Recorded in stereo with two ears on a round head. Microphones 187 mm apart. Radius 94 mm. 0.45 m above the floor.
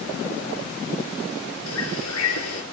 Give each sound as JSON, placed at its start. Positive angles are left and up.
{"t": 1.7, "sound": "a bird", "side_deg": 80, "distance_m": 6.5}